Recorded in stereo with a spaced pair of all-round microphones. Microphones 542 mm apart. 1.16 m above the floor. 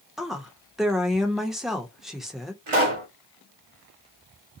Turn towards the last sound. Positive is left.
turn(degrees=-65)  # may be behind; listen again after turning